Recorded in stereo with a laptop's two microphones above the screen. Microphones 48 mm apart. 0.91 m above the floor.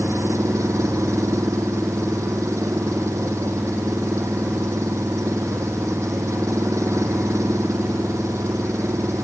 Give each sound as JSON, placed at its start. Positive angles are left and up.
{"t": 0.0, "sound": "an engine running", "side_deg": -90}